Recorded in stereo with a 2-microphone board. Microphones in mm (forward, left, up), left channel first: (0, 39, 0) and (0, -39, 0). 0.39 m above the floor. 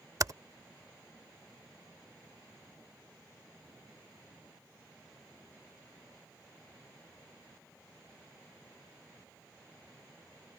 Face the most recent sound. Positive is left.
turn(degrees=-50)  # may be behind; listen again after turning